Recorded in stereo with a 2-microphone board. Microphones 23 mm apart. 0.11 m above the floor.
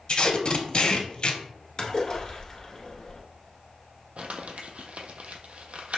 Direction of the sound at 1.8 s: 25° left (ahead or behind).